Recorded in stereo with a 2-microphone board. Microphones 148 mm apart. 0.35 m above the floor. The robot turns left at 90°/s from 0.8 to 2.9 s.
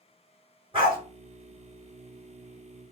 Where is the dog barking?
35° right (ahead or behind), 1.8 m; by 1.0 s 20° right (ahead or behind), 1.8 m.